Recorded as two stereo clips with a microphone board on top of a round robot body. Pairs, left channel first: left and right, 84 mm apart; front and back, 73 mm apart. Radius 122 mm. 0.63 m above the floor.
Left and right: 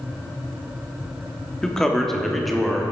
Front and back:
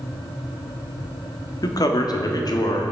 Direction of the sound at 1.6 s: 5° left.